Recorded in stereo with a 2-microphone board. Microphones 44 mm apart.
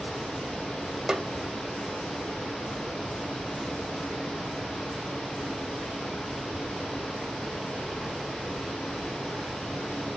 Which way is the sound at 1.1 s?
10° right (ahead or behind).